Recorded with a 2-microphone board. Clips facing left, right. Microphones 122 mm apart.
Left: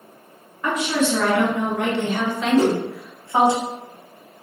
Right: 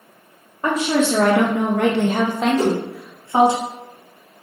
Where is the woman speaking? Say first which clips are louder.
Right 3 dB; 45° right (ahead or behind), 0.7 m; by 3.6 s 20° right (ahead or behind), 1.1 m.